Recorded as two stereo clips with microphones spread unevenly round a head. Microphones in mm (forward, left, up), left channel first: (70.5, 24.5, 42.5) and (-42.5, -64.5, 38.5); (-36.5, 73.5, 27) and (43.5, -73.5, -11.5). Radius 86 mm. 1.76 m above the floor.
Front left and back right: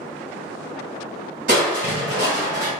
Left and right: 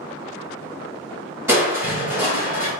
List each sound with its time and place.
1.5 s crushing: 145° right, 2.0 m